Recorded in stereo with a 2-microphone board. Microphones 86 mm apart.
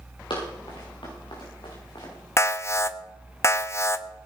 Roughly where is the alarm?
Left.